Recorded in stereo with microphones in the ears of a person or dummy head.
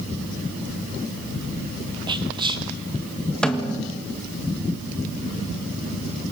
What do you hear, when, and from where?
2.1 s whispering: 25° right (ahead or behind), 2 m
3.4 s a snare drum: 5° left (ahead or behind), 2 m